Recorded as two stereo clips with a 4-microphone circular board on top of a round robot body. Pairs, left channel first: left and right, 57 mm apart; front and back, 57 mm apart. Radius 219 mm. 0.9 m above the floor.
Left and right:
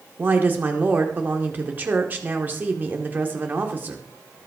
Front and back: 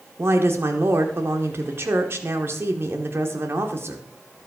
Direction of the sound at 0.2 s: 145° right.